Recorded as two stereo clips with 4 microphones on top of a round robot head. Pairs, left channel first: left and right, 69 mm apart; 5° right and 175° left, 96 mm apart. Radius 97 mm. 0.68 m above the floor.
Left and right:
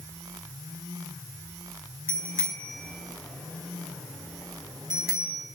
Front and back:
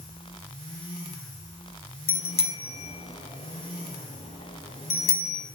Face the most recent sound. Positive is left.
turn(degrees=-15)